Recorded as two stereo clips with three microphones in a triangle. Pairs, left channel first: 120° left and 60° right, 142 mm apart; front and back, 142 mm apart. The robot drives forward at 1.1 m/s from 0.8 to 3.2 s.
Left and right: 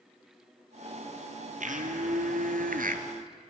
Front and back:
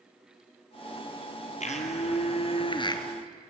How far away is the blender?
About 3 m.